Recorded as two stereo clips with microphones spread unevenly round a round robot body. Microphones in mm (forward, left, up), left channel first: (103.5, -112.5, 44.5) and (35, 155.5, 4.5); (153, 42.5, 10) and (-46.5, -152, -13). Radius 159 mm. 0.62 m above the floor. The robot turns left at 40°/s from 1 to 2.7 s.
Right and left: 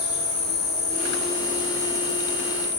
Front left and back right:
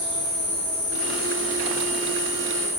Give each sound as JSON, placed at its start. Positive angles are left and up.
{"t": 0.0, "sound": "an insect", "azimuth_deg": -70, "distance_m": 0.8}